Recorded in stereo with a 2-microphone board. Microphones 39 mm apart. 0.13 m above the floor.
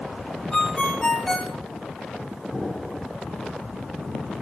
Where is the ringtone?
10° left (ahead or behind), 2.5 m.